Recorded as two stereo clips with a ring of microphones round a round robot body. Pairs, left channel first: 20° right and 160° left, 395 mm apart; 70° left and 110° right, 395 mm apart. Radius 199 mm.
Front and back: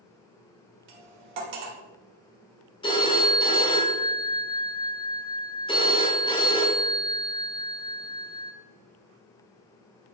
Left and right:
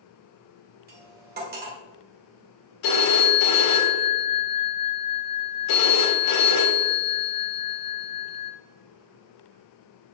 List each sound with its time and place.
0.9 s cutlery clinking: straight behind, 1.6 m
2.8 s a phone ringing: 55° left, 1.7 m